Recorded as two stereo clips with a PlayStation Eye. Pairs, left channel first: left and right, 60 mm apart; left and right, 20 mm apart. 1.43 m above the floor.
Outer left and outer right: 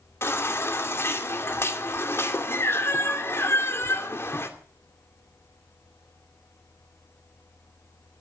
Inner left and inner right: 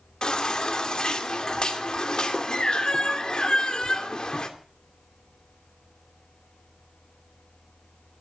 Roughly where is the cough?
No cough in this recording.